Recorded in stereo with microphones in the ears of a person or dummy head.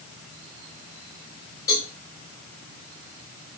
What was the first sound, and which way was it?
A cowbell, 15° left (ahead or behind).